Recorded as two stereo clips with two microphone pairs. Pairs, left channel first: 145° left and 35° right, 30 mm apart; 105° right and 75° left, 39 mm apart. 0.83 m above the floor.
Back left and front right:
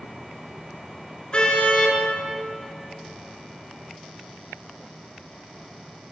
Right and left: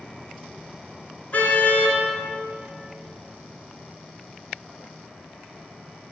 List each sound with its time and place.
1.3 s a car horn: 155° right, 5.5 m